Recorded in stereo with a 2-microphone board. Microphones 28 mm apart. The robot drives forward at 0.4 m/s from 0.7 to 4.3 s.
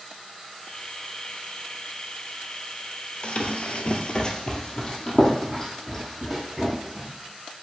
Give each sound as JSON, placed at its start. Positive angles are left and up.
{"t": 3.2, "sound": "running footsteps", "side_deg": 40, "distance_m": 0.9}